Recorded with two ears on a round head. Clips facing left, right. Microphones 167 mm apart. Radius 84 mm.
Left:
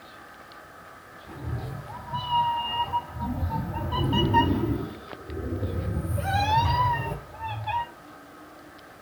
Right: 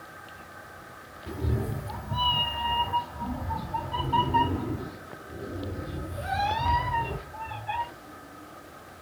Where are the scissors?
I don't hear scissors.